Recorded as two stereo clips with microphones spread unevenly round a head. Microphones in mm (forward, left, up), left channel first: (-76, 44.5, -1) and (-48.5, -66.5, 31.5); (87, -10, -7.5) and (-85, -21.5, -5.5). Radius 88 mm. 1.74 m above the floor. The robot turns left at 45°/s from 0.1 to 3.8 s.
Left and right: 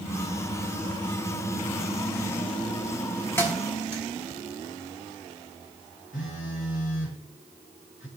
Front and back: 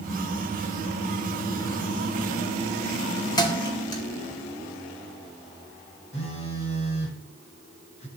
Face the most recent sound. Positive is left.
turn(degrees=60)